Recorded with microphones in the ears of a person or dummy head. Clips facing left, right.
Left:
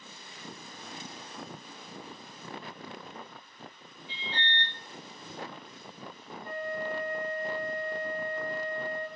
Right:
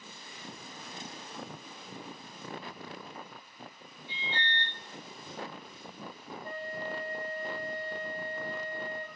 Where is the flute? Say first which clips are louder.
Left 4 dB; 30° right (ahead or behind), 0.5 m.